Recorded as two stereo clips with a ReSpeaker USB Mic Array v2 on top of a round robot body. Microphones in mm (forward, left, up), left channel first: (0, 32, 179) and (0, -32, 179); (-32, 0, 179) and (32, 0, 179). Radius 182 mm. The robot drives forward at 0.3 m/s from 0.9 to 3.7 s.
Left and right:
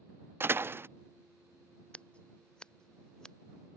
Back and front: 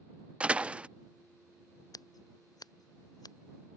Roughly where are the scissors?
Behind.